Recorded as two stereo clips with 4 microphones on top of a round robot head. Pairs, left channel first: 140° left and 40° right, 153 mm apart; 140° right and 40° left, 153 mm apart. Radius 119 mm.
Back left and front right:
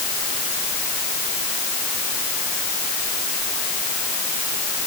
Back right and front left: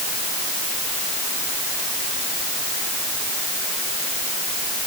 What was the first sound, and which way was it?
Only background noise.